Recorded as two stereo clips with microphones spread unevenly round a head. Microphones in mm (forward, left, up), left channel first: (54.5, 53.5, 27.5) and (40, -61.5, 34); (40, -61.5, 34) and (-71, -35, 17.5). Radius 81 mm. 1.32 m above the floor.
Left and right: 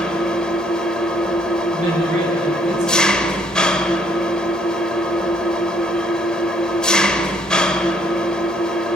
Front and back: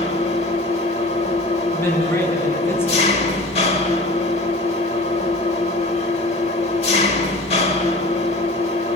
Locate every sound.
0.0 s an engine running: straight ahead, 1.6 m
1.7 s a man speaking: 80° right, 9 m